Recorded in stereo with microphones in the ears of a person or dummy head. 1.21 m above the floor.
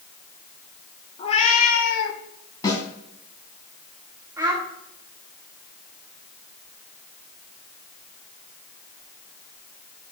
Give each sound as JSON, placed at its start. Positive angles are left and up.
{"t": 1.2, "sound": "a cat meowing", "side_deg": 30, "distance_m": 1.5}
{"t": 2.6, "sound": "a snare drum", "side_deg": 25, "distance_m": 3.0}
{"t": 4.4, "sound": "a child speaking", "side_deg": -25, "distance_m": 2.5}